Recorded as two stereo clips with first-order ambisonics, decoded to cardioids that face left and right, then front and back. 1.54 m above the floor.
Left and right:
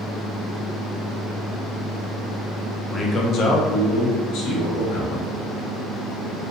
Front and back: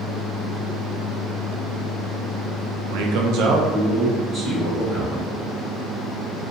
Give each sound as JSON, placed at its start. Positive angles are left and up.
{"t": 2.9, "sound": "a man speaking", "azimuth_deg": 170, "distance_m": 0.6}